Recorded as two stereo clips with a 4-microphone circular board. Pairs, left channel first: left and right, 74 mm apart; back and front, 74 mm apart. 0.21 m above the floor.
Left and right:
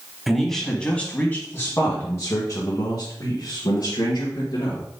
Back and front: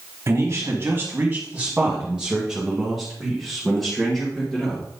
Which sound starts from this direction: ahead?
A man speaking, at 0.3 s.